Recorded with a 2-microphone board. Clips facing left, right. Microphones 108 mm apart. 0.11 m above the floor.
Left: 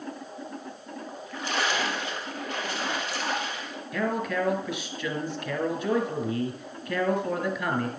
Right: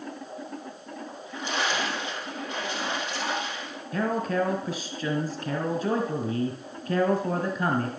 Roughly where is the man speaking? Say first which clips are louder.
Right 2 dB; right.